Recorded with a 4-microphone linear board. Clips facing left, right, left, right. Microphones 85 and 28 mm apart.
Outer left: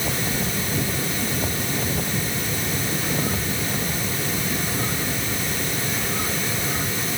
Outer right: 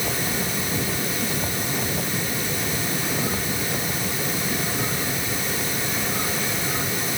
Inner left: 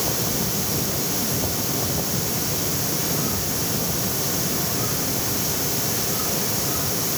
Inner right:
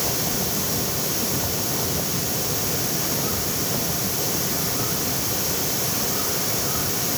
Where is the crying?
I don't hear crying.